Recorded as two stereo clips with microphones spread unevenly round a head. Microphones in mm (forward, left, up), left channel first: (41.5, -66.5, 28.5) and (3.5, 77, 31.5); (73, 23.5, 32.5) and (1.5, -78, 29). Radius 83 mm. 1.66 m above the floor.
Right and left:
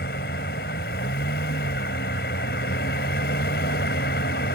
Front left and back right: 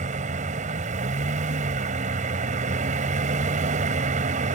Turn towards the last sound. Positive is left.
turn(degrees=-110)